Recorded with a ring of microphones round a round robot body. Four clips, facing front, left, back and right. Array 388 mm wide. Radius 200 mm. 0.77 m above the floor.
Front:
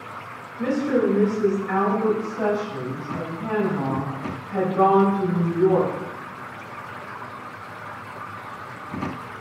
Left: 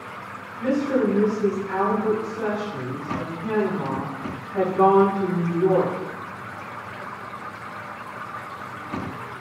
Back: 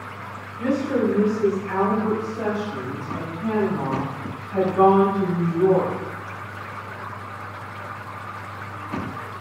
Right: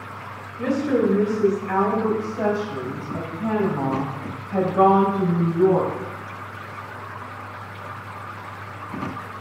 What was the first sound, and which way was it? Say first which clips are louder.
A woman speaking: right 1 dB, front 1 dB; 65° right.